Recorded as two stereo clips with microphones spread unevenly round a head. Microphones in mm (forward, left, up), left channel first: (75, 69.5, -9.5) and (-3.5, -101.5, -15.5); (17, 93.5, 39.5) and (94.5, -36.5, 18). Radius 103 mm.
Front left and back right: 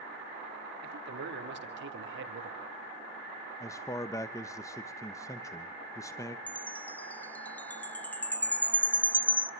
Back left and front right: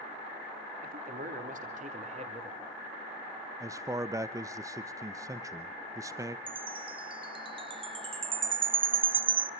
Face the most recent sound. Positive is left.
turn(degrees=-10)